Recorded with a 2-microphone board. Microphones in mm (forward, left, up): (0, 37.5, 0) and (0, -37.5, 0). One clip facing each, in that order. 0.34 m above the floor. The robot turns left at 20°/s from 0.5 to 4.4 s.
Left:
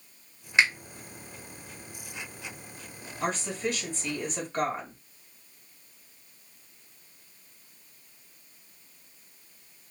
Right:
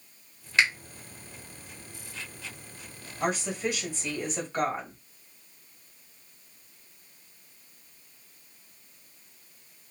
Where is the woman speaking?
15° right (ahead or behind), 1.5 m; by 5.0 s 5° right (ahead or behind), 1.5 m.